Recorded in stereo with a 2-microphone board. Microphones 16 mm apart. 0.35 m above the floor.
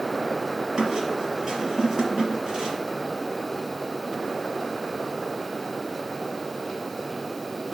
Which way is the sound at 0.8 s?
50° right (ahead or behind).